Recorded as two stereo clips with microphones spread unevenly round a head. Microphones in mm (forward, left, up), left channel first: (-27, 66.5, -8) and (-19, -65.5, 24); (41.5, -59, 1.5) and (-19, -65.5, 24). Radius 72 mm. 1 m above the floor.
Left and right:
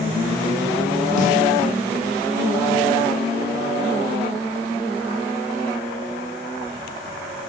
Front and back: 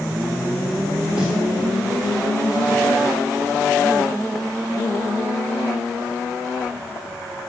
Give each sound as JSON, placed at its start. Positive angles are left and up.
{"t": 1.2, "sound": "a snare drum", "azimuth_deg": 95, "distance_m": 1.1}